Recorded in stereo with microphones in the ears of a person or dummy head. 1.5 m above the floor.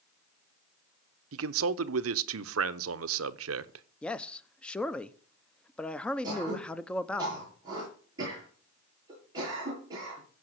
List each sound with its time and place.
1.3 s a man speaking: 80° right, 0.9 m
4.0 s a man speaking: 10° left (ahead or behind), 0.9 m
6.2 s throat clearing: 25° right (ahead or behind), 7.5 m